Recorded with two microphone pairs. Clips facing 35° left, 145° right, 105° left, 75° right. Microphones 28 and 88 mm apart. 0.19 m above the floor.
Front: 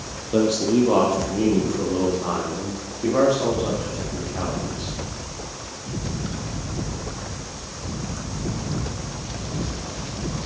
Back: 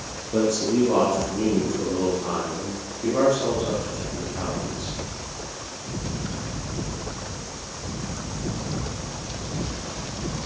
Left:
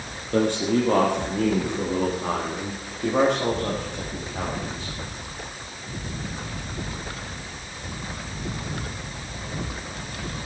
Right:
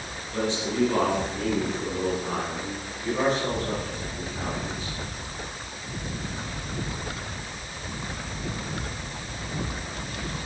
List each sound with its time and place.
0.3 s a man speaking: 70° left, 4.5 m; by 4.9 s 75° left, 9 m